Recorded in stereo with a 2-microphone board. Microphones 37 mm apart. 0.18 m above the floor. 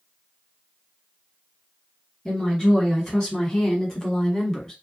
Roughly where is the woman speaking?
Centre.